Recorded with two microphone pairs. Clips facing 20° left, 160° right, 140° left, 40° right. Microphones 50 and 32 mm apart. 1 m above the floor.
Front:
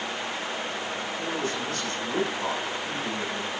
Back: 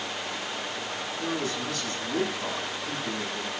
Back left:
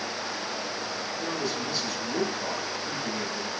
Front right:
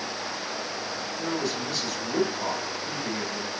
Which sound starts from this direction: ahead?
A man speaking, at 1.2 s.